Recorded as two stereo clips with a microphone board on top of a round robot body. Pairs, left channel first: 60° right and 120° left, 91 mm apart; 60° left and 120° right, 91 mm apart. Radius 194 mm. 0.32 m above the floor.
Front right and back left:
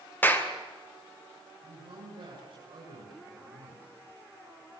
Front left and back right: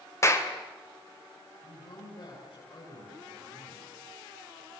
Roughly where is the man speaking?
Left.